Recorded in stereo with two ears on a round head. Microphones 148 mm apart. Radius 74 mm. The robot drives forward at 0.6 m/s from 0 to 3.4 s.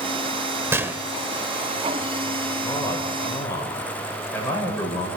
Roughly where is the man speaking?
Centre.